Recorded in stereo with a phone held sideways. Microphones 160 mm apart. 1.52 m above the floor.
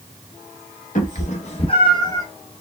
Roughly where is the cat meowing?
Left.